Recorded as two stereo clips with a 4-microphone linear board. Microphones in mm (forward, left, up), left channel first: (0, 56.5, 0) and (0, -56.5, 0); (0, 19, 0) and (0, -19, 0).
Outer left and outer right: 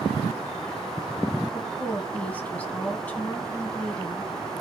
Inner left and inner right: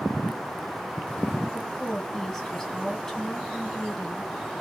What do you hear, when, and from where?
1.5 s a woman speaking: 15° left (ahead or behind), 2 m